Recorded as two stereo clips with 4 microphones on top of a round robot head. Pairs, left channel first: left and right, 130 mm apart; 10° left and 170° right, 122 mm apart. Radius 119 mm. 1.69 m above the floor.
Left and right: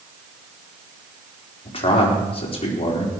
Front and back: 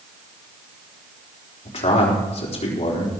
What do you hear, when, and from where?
1.6 s a man speaking: 45° left, 4 m